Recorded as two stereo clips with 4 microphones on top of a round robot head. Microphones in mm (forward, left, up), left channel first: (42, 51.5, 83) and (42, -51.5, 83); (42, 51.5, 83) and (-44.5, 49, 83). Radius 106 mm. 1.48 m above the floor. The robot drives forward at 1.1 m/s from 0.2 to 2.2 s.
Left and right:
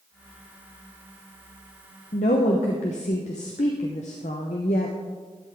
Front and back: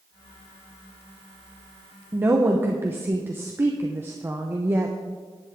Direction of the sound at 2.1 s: 115° left.